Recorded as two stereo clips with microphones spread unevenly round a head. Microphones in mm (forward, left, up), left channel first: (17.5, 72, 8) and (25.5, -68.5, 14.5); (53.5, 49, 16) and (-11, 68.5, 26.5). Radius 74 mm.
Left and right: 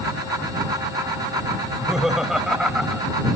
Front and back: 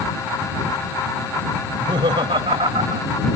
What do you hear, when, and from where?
1.6 s laughter: 175° right